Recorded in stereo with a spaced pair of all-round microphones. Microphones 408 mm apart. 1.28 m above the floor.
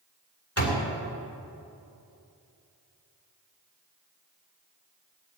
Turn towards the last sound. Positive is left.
turn(degrees=35)  # may be behind; listen again after turning